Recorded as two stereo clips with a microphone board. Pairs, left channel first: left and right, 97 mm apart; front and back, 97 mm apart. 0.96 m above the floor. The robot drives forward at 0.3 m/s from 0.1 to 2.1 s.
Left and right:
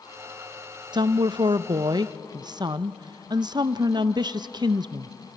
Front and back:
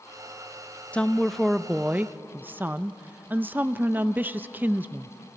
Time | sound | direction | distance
0.9 | a woman speaking | 70° right | 0.6 m